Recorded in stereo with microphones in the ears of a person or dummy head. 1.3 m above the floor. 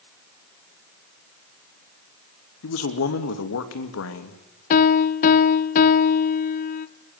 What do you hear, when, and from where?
2.6 s a man speaking: 65° left (ahead or behind), 2.5 m
4.7 s a piano: 50° left (ahead or behind), 0.9 m